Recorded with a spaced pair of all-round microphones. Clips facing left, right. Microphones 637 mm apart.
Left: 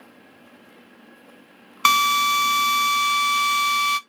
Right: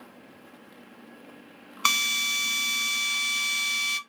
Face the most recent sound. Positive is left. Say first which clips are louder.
# left 11 dB
turn(degrees=75)  # may be behind; listen again after turning